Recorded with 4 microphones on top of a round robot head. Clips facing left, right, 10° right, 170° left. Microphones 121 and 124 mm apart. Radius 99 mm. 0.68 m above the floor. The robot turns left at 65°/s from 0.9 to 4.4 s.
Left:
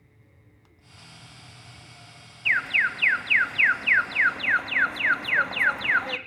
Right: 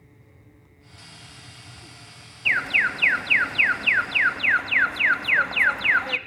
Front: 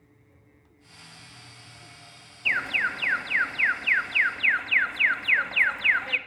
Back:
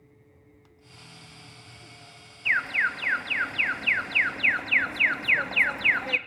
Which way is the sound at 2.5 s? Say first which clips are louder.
Right 2 dB, back 1 dB; 55° right.